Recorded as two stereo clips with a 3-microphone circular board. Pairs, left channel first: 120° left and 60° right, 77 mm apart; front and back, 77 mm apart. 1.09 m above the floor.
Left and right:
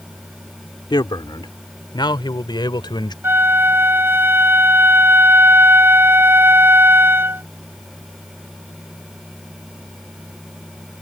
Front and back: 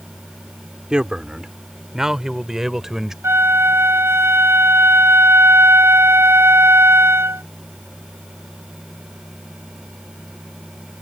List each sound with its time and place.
0.9 s a man speaking: 100° left; by 3.1 s 95° left
3.2 s a flute: 125° right